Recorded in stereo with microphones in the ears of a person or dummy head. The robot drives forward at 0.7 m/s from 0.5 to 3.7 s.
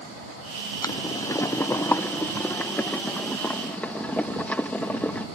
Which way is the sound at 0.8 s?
15° left (ahead or behind).